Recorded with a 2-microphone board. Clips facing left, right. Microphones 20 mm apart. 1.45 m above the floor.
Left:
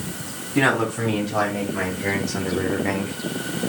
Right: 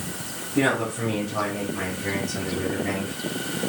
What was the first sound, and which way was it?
A man speaking, 80° left.